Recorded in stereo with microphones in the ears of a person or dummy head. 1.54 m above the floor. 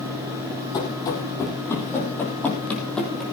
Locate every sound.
0.7 s running footsteps: 15° left (ahead or behind), 4 m; by 3.2 s centre (ahead or behind), 4 m